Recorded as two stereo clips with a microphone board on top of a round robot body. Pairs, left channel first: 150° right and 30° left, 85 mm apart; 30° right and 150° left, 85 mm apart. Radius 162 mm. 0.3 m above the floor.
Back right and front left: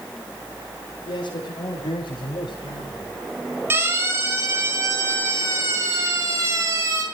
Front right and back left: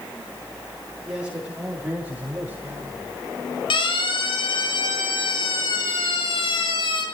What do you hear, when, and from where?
1.1 s a man speaking: 135° right, 7.5 m; by 3.1 s 150° right, 8.5 m
3.7 s a siren: 30° right, 8.5 m; by 7.0 s 20° right, 7 m